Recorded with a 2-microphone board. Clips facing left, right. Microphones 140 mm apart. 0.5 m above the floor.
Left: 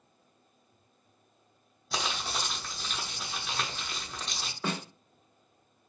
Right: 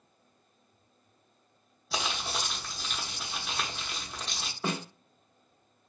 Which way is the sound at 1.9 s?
Centre (ahead or behind).